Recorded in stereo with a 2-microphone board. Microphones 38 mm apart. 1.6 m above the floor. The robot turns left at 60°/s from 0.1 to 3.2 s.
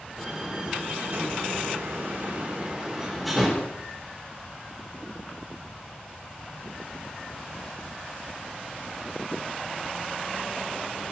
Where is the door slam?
5° left (ahead or behind), 4.5 m; by 3.7 s 5° right (ahead or behind), 4.5 m.